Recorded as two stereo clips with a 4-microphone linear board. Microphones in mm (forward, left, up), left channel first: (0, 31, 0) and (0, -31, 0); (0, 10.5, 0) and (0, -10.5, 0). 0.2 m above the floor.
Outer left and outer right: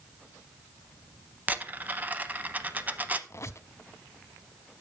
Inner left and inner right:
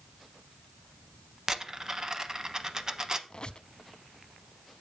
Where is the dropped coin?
25° right (ahead or behind), 0.7 m.